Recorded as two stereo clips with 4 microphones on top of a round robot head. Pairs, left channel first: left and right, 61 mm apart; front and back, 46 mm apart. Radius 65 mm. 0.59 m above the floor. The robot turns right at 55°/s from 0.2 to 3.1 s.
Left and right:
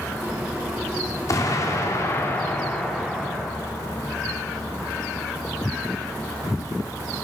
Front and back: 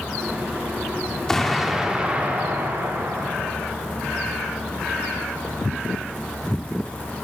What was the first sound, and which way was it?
An explosion, 75° left.